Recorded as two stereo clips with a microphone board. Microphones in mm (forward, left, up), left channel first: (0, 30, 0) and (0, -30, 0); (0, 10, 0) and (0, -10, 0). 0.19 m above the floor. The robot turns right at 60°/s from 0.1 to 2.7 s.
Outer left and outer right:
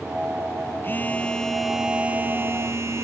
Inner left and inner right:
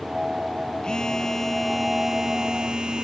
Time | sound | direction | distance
0.8 | a phone buzzing | 130° left | 1.0 m